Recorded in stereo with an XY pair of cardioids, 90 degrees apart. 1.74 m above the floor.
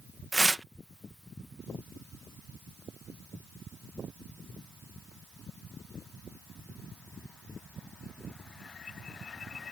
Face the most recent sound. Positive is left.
turn(degrees=-15)